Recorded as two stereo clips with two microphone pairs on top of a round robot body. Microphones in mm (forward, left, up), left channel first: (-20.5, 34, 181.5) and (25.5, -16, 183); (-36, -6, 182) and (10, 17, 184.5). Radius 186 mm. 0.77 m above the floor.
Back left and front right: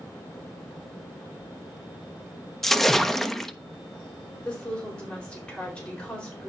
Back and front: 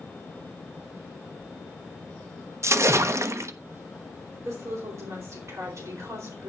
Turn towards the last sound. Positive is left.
turn(degrees=55)